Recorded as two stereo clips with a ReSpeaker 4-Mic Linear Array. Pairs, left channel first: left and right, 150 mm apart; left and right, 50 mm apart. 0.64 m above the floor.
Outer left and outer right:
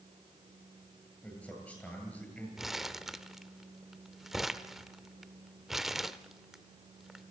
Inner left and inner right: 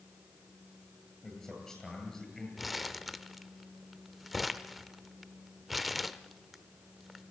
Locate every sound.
1.2 s a man speaking: 10° left (ahead or behind), 9.5 m
2.6 s crumpling: centre (ahead or behind), 0.8 m